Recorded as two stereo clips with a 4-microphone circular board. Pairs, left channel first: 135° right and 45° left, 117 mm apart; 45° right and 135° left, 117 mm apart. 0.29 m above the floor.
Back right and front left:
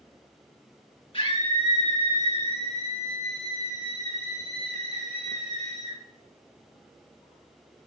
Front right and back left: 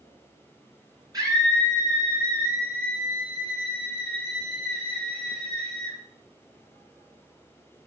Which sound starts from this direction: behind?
A scream, at 1.1 s.